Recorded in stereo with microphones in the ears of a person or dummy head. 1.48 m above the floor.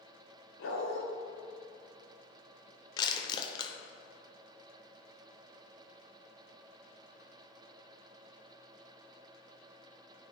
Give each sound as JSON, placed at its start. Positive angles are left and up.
{"t": 0.6, "sound": "a dog barking", "side_deg": 60, "distance_m": 1.7}
{"t": 3.0, "sound": "crushing", "side_deg": 20, "distance_m": 0.7}